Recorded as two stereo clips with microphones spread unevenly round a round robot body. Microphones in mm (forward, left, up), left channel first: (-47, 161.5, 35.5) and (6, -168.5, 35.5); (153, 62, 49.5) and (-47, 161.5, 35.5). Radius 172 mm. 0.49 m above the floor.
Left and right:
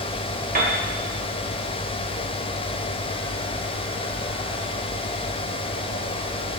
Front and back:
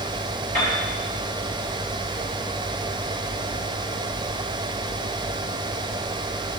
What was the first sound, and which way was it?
A piano, 145° right.